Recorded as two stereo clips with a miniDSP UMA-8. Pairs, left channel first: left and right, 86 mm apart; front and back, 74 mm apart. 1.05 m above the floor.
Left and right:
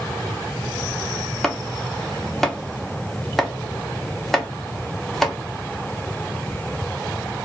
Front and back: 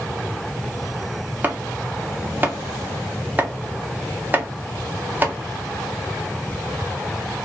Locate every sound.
1.4 s chopping: 170° left, 0.6 m